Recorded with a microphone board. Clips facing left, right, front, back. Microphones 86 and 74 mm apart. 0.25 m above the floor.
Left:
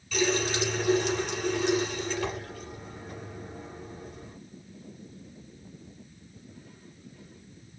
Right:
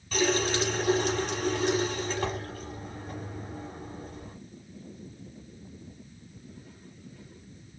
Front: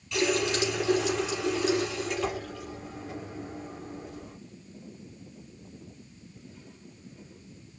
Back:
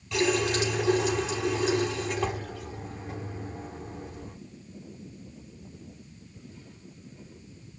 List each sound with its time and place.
0.1 s a running tap: 140° right, 3.5 m